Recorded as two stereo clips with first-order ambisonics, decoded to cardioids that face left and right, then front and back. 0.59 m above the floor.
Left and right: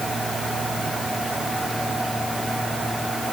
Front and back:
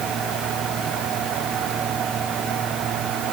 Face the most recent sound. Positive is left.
No sound to turn to.